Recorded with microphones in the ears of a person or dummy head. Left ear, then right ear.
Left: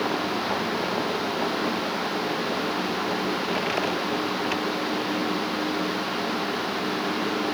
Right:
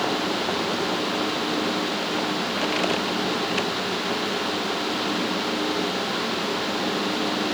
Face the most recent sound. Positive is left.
No sound to turn to.